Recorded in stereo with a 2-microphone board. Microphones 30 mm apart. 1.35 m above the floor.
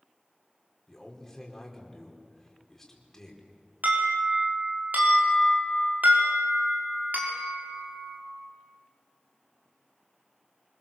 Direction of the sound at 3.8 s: 75° right (ahead or behind).